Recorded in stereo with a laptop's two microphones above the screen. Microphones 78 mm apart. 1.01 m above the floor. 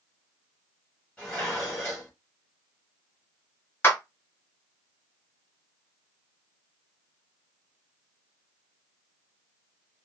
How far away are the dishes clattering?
About 1.3 m.